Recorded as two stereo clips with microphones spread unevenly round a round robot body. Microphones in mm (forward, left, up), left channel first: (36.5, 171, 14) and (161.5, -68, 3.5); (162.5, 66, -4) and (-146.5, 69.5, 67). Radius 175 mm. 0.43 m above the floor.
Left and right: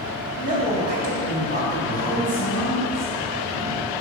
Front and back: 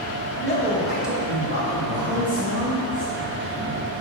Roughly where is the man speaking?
Ahead.